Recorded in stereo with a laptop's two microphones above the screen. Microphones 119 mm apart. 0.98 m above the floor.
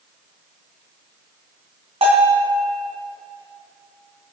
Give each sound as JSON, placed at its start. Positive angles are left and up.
{"t": 2.0, "sound": "a bell", "side_deg": -55, "distance_m": 3.0}